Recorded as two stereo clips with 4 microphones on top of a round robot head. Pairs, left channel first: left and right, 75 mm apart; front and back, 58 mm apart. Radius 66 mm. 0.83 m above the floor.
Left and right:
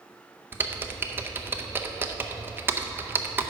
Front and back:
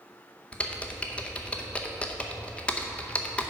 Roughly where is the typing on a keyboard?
Ahead right.